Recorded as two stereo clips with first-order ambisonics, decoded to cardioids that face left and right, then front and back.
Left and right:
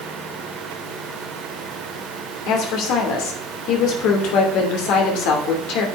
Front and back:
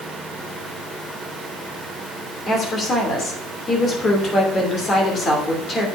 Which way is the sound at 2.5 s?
65° left.